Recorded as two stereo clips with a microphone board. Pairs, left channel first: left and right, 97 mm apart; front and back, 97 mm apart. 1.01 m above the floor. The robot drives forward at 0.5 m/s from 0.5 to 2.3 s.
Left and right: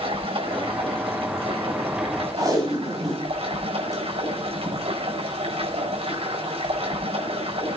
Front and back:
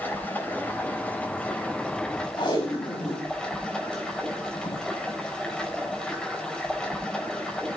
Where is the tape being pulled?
35° right, 6 m.